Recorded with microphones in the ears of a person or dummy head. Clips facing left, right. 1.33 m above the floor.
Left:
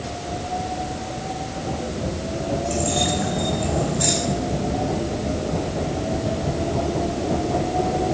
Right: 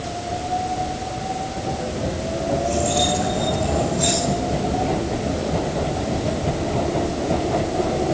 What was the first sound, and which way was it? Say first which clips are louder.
Keys jangling: right 2 dB; 5° left (ahead or behind).